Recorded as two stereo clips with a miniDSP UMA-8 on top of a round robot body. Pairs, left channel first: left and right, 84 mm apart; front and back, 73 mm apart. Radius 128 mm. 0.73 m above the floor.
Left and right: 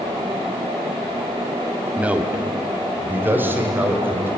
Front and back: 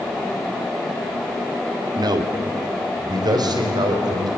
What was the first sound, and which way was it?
A man speaking, 165° right.